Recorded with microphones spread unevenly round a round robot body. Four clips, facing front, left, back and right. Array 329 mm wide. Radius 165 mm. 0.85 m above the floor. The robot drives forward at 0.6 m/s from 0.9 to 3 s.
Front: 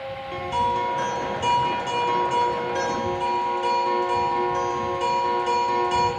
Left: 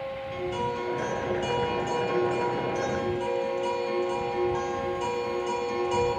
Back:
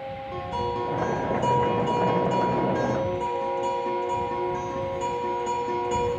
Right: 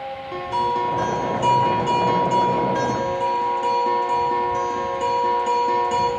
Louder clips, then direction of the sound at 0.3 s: Right 9 dB, front 6 dB; 70° right.